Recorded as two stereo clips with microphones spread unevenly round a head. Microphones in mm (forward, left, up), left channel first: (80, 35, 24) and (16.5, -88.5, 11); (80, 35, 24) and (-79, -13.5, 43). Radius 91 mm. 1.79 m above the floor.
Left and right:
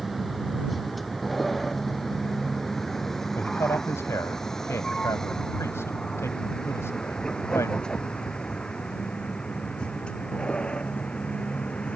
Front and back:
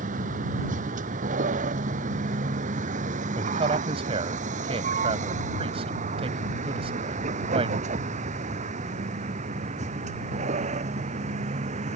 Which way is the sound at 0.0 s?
150° left.